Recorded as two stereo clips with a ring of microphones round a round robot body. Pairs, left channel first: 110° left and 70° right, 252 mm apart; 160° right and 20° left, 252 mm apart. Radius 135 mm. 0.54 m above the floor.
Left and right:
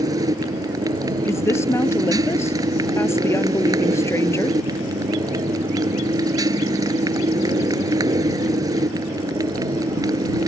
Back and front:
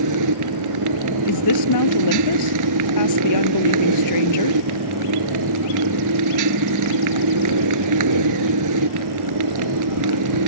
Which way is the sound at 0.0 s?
10° left.